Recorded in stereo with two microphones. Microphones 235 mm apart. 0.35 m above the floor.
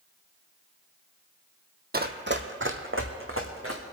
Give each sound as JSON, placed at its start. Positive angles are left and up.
{"t": 1.9, "sound": "running footsteps", "side_deg": -40, "distance_m": 0.9}